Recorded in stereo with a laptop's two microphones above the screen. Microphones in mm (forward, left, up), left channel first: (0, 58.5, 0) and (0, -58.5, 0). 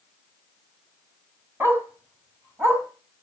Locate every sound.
1.6 s a dog barking: 20° right (ahead or behind), 3.5 m